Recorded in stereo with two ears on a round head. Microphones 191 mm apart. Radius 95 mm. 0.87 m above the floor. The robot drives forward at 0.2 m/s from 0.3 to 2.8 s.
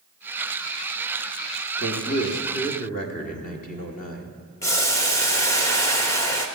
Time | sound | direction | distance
1.8 | a man speaking | 45° left (ahead or behind) | 1.6 m
4.6 | boiling | 15° left (ahead or behind) | 1.1 m